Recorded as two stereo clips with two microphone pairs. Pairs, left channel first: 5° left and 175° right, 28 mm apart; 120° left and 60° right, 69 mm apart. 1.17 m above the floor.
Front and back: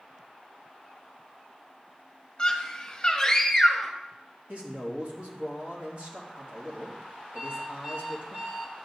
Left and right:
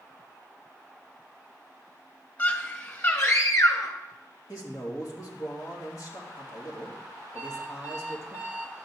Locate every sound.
2.4 s a scream: 65° left, 2 m; by 4.0 s 95° left, 1.5 m
4.5 s a man speaking: 145° left, 3 m
7.3 s an alarm clock: 130° right, 1.7 m